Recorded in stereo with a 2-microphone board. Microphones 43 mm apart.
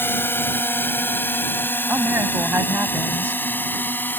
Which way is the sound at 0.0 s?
55° left (ahead or behind).